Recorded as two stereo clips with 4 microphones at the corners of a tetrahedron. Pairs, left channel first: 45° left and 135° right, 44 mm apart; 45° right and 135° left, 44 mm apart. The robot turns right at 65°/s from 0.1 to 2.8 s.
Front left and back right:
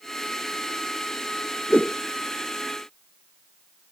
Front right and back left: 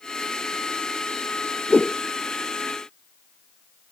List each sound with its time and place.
1.7 s a whoosh: 10° right; by 2.0 s 10° left